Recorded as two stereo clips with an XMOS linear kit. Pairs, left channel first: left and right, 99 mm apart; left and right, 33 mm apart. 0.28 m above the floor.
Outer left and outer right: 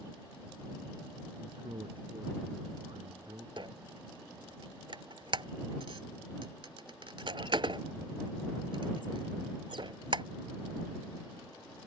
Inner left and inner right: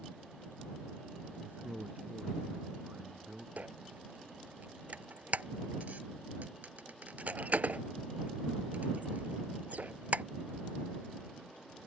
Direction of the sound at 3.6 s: 60° right (ahead or behind).